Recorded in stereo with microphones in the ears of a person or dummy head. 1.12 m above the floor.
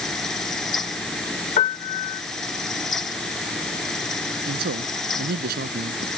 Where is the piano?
35° left (ahead or behind).